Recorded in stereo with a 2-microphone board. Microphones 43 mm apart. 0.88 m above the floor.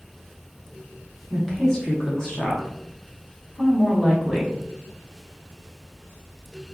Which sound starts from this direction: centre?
A woman speaking, at 1.3 s.